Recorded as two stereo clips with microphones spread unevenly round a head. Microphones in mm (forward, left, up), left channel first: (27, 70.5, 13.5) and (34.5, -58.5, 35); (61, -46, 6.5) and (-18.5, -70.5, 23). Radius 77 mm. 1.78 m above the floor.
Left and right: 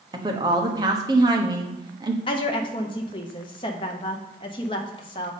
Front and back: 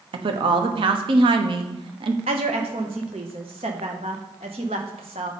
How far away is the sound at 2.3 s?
About 1.0 m.